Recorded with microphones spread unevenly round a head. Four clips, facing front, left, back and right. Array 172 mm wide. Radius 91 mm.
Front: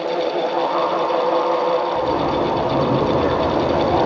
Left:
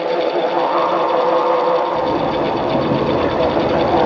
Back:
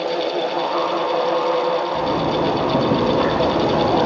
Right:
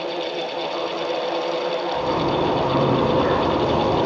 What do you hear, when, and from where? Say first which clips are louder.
1.9 s a zipper: left 4 dB, front 1 dB; 175° left, 3.5 m